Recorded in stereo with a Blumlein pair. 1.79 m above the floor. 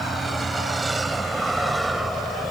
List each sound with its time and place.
0.0 s a vehicle: 15° right; by 2.5 s 5° right